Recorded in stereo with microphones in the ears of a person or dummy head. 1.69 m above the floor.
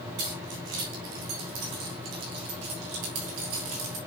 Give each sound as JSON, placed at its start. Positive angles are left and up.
{"t": 0.2, "sound": "keys jangling", "side_deg": -60, "distance_m": 4.0}